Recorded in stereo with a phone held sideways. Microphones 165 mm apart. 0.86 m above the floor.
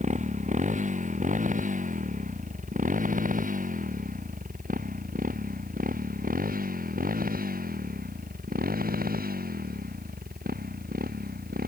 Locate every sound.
0.0 s a motorcycle: 45° right (ahead or behind); by 11.7 s 65° right (ahead or behind)